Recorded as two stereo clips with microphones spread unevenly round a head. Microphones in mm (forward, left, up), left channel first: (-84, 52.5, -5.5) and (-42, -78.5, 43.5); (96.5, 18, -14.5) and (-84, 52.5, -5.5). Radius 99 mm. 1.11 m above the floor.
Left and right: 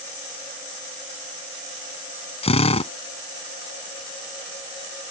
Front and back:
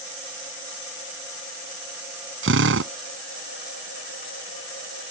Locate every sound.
2.4 s a drill: 155° left